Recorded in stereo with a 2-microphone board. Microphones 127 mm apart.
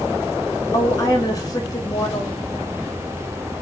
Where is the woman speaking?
30° left (ahead or behind), 2.5 m.